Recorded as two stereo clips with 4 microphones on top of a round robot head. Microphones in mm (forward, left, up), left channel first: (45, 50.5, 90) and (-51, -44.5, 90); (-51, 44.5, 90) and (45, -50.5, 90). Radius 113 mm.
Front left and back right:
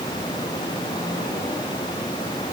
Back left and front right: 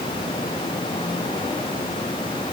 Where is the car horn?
No car horn in this recording.